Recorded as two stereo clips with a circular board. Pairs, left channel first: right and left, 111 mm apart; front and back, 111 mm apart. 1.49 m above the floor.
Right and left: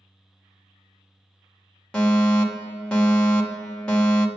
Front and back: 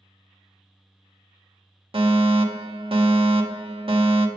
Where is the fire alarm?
170° right, 1.8 m.